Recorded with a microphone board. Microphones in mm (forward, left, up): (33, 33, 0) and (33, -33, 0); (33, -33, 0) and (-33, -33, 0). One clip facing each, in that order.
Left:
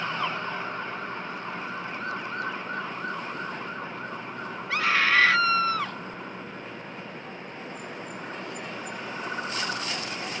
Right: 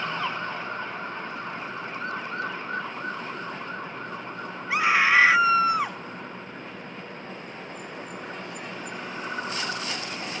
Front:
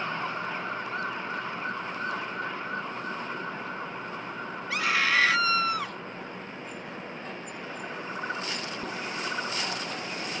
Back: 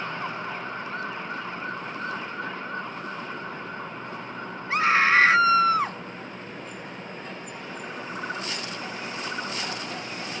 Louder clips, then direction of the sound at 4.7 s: Right 3 dB, back 6 dB; 150° right.